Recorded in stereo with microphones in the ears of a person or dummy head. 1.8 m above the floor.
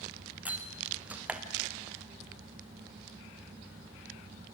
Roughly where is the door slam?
Centre.